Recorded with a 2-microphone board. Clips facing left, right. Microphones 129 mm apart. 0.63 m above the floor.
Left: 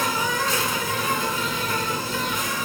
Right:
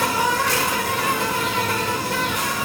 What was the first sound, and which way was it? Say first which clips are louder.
An insect: right 4 dB; 75° right (ahead or behind).